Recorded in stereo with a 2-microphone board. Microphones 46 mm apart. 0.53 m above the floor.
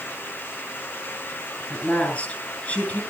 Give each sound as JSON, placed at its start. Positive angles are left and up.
{"t": 1.7, "sound": "a woman speaking", "side_deg": 30, "distance_m": 7.5}